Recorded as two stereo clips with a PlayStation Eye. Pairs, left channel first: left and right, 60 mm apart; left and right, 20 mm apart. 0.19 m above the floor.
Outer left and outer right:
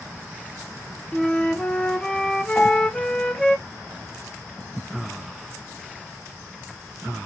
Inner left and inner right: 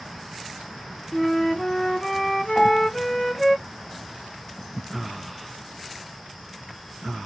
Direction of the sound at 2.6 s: 15° left (ahead or behind).